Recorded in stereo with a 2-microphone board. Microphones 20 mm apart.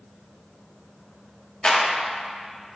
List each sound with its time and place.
1.6 s a clap: 55° left (ahead or behind), 1.2 m